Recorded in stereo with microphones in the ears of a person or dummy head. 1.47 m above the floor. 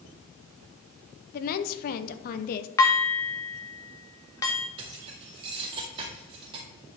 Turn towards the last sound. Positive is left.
turn(degrees=-30)  # may be behind; listen again after turning